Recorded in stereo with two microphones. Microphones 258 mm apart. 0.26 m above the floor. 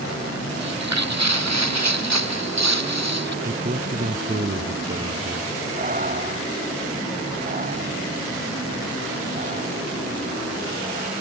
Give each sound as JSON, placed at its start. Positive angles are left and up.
{"t": 0.6, "sound": "footsteps", "side_deg": -80}
{"t": 3.4, "sound": "a man speaking", "side_deg": -35}
{"t": 5.8, "sound": "breathing", "side_deg": -30}